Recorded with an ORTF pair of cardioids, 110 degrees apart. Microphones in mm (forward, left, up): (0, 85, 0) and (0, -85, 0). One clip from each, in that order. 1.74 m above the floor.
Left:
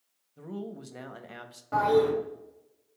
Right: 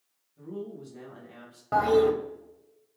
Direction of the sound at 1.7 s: 40° right.